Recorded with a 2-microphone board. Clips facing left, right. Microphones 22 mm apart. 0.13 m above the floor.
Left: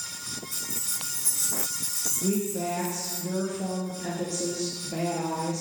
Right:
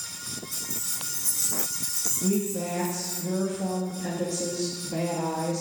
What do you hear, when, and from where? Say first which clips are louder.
0.5 s keys jangling: even; 20° right (ahead or behind), 3 m; by 3.2 s centre (ahead or behind), 4.5 m
2.2 s a woman speaking: right 1 dB; 15° left (ahead or behind), 2.5 m